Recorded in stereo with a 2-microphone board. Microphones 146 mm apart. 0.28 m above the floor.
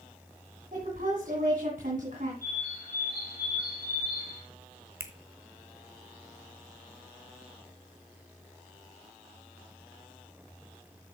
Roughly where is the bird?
Left.